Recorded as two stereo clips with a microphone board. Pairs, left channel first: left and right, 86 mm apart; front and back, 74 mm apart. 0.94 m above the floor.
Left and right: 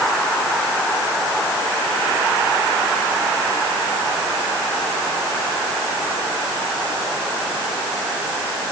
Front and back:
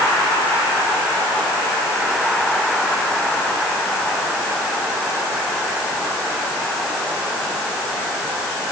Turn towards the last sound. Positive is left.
No sound to turn to.